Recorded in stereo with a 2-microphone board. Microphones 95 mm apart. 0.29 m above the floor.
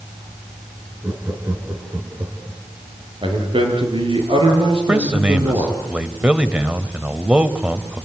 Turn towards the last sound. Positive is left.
turn(degrees=-15)  # may be behind; listen again after turning